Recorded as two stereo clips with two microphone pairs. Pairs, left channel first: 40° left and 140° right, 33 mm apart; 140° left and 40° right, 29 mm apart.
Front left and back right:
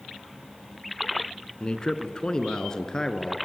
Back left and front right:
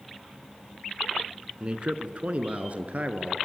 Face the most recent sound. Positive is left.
turn(degrees=-30)